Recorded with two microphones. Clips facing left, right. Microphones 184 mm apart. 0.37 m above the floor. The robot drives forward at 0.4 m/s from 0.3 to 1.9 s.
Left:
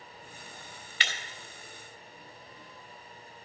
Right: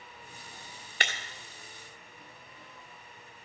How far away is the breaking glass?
About 1.7 m.